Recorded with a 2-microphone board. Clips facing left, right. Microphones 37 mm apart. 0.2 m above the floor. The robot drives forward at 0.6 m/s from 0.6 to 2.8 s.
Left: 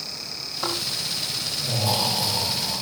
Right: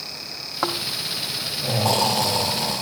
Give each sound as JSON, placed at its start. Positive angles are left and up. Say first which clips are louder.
{"t": 0.6, "sound": "snoring", "louder": "right 3 dB", "side_deg": -55, "distance_m": 5.0}